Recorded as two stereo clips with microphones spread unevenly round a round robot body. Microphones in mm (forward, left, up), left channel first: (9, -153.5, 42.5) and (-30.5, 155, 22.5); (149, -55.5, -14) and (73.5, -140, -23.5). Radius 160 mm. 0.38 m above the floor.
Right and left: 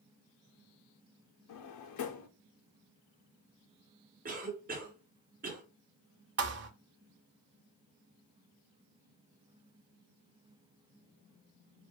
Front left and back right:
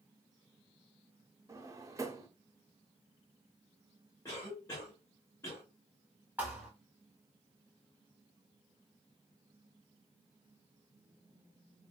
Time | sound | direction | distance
1.5 | a drawer | 85° right | 0.7 m
4.2 | a cough | 90° left | 1.1 m
6.4 | a thud | 145° left | 0.6 m